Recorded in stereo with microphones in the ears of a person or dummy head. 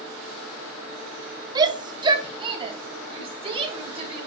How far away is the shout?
About 0.7 m.